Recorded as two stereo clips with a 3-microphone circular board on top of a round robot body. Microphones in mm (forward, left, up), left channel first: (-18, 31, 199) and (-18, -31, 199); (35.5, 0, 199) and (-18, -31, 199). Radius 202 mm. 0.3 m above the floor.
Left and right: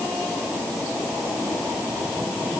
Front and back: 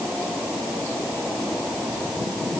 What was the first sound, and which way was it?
Only background noise.